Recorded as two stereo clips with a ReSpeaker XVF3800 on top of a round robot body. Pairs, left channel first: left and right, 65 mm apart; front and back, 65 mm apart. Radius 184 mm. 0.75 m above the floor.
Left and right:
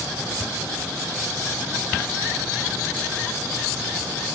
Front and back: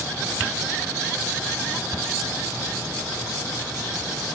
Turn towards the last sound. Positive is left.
No sound to turn to.